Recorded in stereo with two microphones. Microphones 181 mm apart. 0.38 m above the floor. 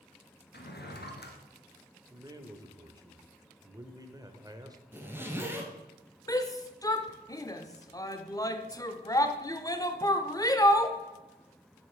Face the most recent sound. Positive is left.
turn(degrees=20)  # may be behind; listen again after turning